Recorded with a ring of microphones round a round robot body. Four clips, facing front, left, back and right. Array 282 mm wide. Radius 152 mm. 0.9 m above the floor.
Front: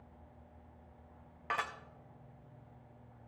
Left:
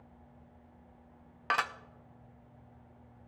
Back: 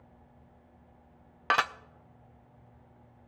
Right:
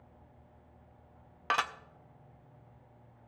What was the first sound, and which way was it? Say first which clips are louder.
Dishes clattering: even, back 10 dB; 175° right.